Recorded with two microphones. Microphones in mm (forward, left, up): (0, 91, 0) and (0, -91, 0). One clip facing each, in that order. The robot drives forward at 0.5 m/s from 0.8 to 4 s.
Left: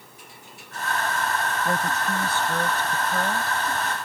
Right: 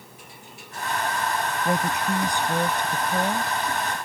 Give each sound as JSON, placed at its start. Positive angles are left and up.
{"t": 1.6, "sound": "a woman speaking", "side_deg": -15}